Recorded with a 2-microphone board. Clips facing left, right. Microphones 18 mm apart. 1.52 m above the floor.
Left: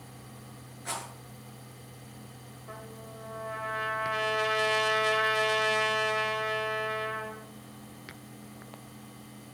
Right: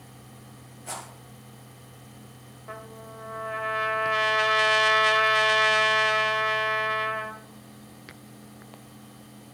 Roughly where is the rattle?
Left.